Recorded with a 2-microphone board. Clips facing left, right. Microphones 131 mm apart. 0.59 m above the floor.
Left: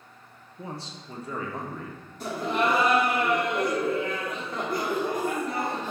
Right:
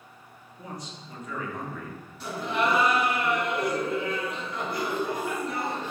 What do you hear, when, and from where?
0.6 s a man speaking: 25° left (ahead or behind), 0.6 m; by 2.0 s 30° left (ahead or behind), 1.0 m
2.2 s laughter: 45° left (ahead or behind), 1.4 m